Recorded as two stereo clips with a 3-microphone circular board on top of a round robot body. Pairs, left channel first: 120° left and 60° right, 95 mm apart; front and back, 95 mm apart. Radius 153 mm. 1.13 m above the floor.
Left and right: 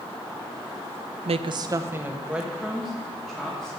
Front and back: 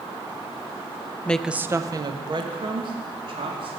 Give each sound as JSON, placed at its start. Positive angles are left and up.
{"t": 1.2, "sound": "a woman speaking", "azimuth_deg": -75, "distance_m": 0.5}